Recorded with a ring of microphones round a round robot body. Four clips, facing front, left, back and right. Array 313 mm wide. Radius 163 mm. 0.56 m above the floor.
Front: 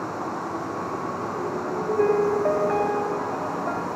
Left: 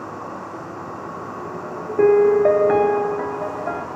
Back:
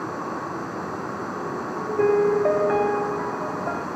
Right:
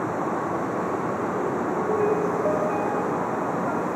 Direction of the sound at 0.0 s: 100° right.